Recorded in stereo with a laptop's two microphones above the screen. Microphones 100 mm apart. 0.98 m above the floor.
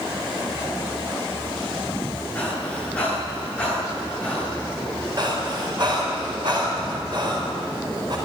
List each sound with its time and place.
2.4 s breathing: 10° left (ahead or behind), 9.5 m
5.2 s breathing: 50° right (ahead or behind), 4 m